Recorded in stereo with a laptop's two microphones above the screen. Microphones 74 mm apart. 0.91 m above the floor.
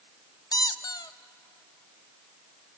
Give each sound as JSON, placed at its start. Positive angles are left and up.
{"t": 0.5, "sound": "a squeak", "side_deg": 65, "distance_m": 0.5}